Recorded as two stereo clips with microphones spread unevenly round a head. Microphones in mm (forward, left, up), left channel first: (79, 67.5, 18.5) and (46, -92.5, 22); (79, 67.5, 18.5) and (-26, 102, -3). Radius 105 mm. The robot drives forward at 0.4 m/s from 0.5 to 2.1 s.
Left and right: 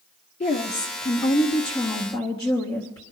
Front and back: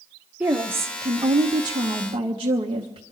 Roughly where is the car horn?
No car horn in this recording.